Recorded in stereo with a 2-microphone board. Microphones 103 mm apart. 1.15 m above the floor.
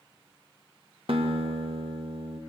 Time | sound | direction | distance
1.1 | a guitar | 65° right (ahead or behind) | 1.9 m